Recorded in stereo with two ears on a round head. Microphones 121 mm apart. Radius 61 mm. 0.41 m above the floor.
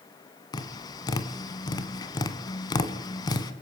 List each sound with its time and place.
0.5 s tapping: 30° left (ahead or behind), 1.7 m